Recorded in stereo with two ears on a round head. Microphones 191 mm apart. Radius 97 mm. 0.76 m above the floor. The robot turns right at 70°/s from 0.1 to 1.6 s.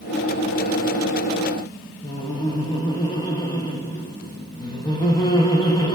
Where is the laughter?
20° left (ahead or behind), 0.6 m.